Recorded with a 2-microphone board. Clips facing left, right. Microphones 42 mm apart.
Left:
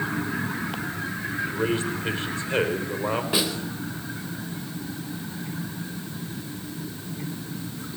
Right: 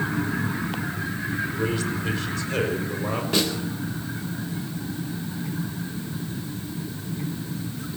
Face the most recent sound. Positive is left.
turn(degrees=10)  # may be behind; listen again after turning